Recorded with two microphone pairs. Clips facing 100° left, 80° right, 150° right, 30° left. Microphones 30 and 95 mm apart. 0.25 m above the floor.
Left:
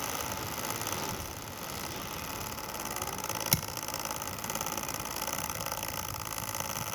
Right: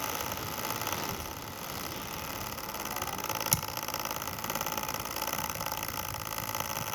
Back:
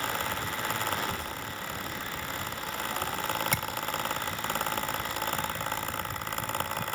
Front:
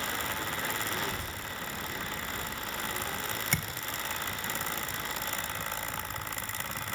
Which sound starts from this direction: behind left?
A thud, at 3.5 s.